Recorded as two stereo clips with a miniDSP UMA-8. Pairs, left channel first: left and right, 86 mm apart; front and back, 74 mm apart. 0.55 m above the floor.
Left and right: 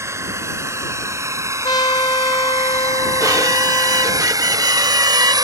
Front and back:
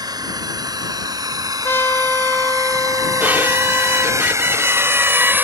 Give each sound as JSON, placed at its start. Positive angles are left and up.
{"t": 0.0, "sound": "a drone", "azimuth_deg": -150}
{"t": 1.6, "sound": "a trumpet", "azimuth_deg": 60}
{"t": 3.2, "sound": "a violin", "azimuth_deg": -120}